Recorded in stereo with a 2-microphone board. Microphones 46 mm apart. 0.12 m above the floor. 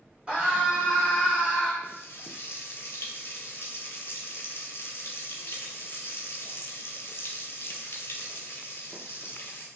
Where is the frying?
60° left (ahead or behind), 0.5 m.